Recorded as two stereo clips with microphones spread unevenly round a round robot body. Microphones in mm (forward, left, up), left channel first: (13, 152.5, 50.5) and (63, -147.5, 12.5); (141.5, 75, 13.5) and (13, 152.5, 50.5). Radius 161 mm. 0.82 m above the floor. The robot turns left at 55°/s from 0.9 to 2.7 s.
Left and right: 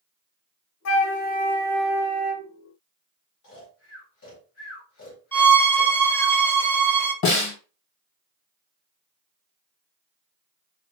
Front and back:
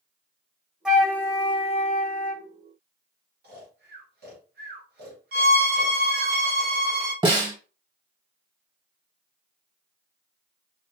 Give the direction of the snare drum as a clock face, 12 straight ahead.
9 o'clock.